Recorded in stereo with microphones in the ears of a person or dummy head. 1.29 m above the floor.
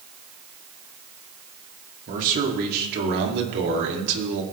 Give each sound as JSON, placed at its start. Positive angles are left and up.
{"t": 2.1, "sound": "a man speaking", "side_deg": -45, "distance_m": 3.0}